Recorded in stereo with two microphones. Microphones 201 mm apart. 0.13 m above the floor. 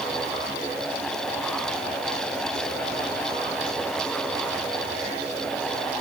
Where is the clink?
I don't hear a clink.